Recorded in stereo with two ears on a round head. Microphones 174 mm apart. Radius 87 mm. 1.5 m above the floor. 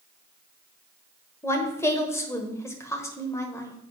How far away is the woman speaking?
About 1.2 m.